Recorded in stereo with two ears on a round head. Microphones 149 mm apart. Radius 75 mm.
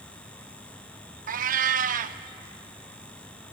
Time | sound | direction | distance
1.3 | a cat meowing | 50° right (ahead or behind) | 0.7 m